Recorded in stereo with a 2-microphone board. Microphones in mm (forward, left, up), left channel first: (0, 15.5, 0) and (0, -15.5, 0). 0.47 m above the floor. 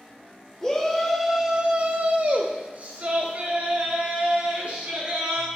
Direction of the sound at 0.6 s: 15° left (ahead or behind).